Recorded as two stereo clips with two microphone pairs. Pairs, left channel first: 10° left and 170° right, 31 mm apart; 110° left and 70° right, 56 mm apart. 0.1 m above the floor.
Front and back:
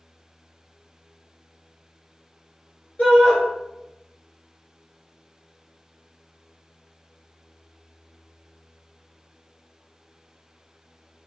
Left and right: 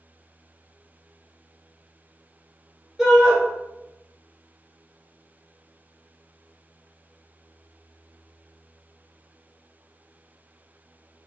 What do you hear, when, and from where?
3.0 s a shout: 15° left, 1.4 m